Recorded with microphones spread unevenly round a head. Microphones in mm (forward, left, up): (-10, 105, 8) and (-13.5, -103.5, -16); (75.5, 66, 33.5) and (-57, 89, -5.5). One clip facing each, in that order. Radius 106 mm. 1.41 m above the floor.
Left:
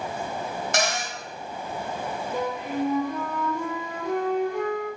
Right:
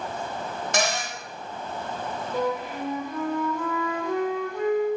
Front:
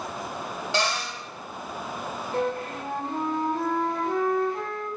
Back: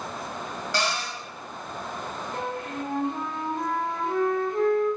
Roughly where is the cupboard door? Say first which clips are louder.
Right 1 dB, front 1 dB; right.